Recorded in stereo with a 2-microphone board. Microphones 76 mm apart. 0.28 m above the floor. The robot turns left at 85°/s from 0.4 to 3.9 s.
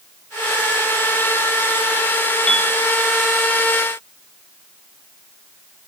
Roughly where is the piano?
Centre.